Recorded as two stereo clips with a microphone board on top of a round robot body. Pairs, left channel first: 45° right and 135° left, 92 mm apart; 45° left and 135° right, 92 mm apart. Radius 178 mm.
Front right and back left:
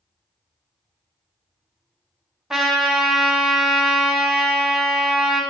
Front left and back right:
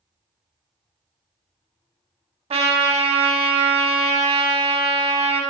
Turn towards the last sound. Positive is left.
turn(degrees=-140)